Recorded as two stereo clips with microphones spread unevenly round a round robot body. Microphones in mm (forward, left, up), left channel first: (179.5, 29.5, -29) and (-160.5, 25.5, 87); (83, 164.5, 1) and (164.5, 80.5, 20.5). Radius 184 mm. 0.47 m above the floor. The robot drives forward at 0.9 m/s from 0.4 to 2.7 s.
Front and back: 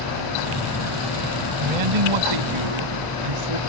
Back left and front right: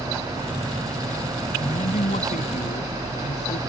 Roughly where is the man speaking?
Behind.